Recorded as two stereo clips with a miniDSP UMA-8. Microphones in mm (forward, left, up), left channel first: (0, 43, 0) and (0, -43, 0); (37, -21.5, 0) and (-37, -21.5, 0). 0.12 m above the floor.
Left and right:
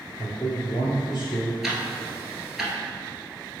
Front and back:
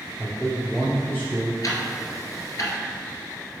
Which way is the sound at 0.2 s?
55° left.